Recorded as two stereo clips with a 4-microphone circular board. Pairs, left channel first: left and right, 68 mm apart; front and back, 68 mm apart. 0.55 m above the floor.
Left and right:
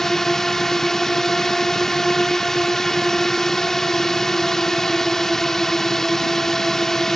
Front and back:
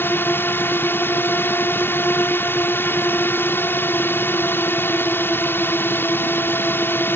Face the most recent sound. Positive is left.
turn(degrees=10)